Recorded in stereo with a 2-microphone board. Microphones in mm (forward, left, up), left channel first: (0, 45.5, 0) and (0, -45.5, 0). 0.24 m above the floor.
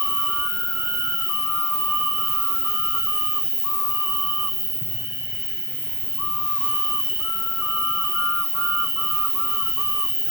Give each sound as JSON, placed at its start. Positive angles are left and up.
{"t": 0.0, "sound": "an insect", "side_deg": -45, "distance_m": 3.5}